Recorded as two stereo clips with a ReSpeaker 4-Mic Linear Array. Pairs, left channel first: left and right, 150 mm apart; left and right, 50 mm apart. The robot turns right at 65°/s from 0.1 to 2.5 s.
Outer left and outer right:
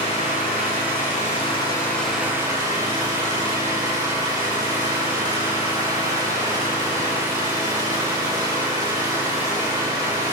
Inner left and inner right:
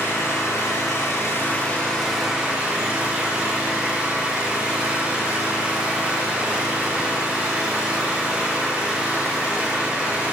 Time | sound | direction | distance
0.0 | an engine running | 50° left | 6.5 m